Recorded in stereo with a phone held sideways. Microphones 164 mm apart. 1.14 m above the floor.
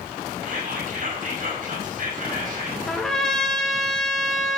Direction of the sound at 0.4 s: 55° right (ahead or behind).